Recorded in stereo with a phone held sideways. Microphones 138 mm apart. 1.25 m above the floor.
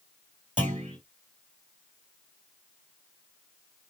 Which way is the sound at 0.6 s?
60° right (ahead or behind).